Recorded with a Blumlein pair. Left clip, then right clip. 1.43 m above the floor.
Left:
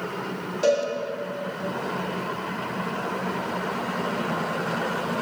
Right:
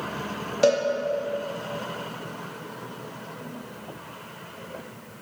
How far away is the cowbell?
About 2.5 m.